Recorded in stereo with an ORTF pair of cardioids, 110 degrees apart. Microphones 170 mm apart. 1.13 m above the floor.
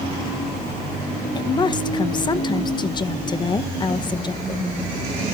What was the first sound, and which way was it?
A woman speaking, 30° left.